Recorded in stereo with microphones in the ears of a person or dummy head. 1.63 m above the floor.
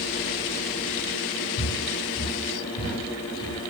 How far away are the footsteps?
About 1.8 m.